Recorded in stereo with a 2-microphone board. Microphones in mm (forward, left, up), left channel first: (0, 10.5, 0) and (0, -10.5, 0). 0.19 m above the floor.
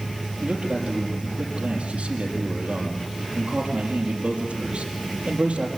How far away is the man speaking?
About 5 m.